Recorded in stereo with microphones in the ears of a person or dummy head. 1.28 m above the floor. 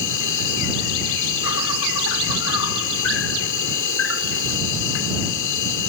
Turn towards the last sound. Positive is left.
turn(degrees=70)  # may be behind; listen again after turning